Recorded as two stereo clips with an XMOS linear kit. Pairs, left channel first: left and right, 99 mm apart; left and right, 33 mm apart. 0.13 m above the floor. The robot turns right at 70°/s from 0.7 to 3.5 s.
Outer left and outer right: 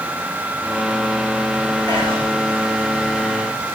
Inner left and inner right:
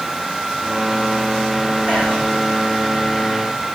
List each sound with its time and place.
1.9 s whispering: 50° right (ahead or behind), 7 m; by 2.2 s 75° right (ahead or behind), 7 m